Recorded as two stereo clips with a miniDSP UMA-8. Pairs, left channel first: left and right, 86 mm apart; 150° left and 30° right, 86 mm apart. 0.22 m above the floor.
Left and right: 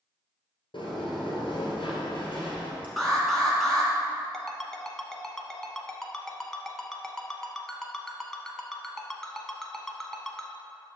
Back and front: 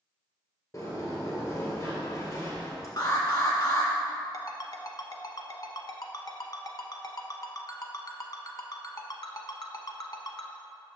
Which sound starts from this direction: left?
A sliding door, at 0.7 s.